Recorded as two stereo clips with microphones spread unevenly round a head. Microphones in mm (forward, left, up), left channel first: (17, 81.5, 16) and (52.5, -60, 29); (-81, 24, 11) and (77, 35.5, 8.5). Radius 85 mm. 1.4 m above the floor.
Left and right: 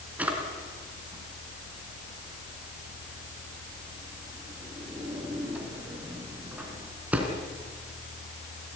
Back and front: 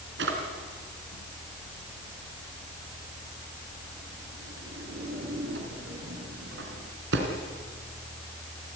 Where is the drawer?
5° left, 3.5 m.